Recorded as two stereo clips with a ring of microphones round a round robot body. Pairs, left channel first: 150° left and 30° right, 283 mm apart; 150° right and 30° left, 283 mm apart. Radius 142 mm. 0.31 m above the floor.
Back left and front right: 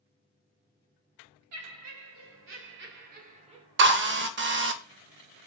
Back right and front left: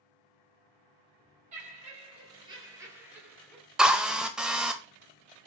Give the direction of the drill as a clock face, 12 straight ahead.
2 o'clock.